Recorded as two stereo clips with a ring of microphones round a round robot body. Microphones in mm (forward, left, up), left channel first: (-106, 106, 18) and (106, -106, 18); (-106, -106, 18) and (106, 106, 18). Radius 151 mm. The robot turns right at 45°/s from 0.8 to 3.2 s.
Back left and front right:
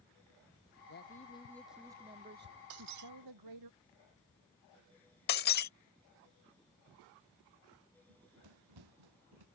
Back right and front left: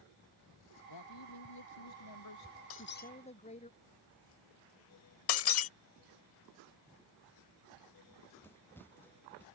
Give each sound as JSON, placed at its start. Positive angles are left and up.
{"t": 0.9, "sound": "a man speaking", "azimuth_deg": -170}
{"t": 2.7, "sound": "breaking glass", "azimuth_deg": -90}
{"t": 5.3, "sound": "breaking glass", "azimuth_deg": -170}
{"t": 8.1, "sound": "running footsteps", "azimuth_deg": -55}